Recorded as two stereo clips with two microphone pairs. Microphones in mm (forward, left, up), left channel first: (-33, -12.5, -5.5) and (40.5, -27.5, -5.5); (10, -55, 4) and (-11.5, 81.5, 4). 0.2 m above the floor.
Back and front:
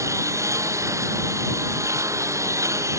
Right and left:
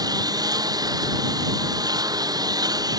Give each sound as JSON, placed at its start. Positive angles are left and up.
{"t": 0.0, "sound": "a lawn mower", "azimuth_deg": 35}